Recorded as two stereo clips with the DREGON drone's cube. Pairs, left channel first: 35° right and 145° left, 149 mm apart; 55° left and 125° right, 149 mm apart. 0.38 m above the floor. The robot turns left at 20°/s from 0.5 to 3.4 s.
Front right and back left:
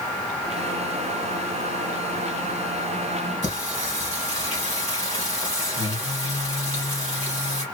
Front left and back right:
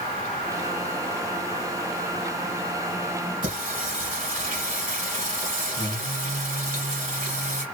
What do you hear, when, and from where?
3.4 s singing: 100° right, 2 m